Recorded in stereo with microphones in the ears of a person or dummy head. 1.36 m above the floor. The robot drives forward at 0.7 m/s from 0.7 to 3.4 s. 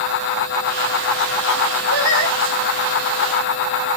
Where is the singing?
85° left, 5.5 m.